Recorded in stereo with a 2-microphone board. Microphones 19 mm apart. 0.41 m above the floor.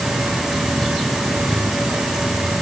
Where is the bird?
No bird in this recording.